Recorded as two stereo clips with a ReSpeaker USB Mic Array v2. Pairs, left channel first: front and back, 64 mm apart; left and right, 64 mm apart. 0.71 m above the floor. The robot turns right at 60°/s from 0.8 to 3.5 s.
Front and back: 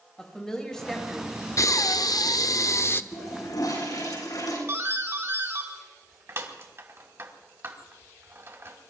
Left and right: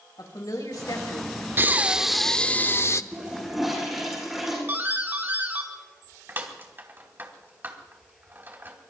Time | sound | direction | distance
0.2 | a woman speaking | 80° left | 5 m
1.6 | breathing | 35° right | 0.5 m
3.1 | a toilet flushing | 25° right | 8.5 m
4.7 | a doorbell | 140° right | 2.5 m